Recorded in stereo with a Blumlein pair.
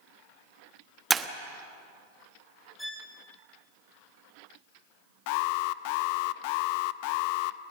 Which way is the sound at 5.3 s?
45° left.